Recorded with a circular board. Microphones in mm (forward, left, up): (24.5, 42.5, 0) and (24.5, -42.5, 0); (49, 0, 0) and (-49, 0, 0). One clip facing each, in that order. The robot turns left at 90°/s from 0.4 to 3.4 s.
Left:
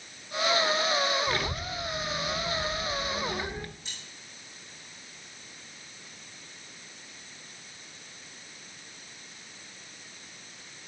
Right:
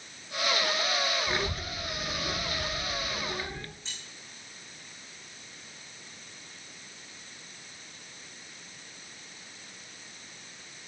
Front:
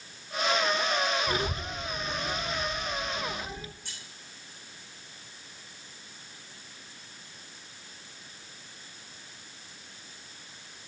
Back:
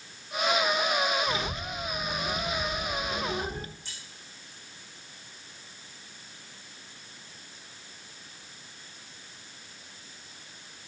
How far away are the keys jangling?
About 4.5 m.